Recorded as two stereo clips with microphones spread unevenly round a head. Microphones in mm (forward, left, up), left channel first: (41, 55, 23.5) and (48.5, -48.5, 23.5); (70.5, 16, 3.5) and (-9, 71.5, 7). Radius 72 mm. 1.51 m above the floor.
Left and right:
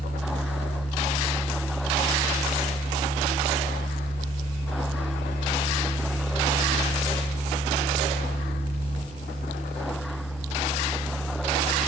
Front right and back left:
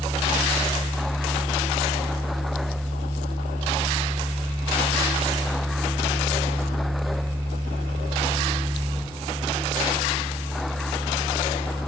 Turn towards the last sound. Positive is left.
turn(degrees=105)